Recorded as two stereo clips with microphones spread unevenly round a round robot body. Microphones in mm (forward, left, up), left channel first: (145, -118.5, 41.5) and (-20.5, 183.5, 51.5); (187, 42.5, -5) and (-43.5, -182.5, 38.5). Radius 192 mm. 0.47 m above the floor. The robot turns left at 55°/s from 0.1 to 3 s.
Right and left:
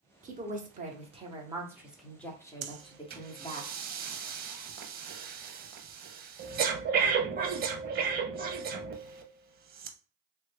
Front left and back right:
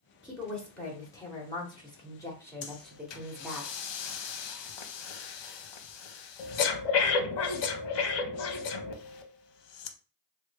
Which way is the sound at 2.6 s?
75° left.